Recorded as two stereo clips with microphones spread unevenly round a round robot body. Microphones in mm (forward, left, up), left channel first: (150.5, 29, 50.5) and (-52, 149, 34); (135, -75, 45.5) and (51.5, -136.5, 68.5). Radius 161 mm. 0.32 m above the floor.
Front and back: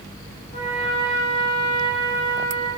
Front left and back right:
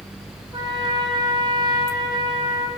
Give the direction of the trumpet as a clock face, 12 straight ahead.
3 o'clock.